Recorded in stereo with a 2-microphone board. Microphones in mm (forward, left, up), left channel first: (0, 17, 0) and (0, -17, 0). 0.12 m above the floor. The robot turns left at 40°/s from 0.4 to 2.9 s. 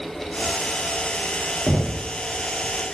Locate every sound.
1.7 s knocking: 40° right (ahead or behind), 3 m; by 2.1 s 25° right (ahead or behind), 3 m